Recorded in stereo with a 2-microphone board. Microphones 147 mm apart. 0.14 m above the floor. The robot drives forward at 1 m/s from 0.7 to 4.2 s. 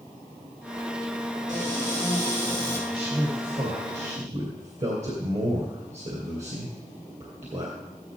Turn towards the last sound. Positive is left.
turn(degrees=-50)  # may be behind; listen again after turning